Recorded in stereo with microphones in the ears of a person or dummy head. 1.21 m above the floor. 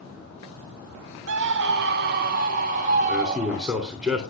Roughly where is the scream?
Right.